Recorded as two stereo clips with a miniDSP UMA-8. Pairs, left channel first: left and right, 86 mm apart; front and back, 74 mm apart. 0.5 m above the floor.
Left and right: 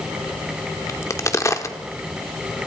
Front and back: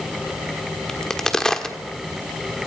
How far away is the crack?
About 1.4 m.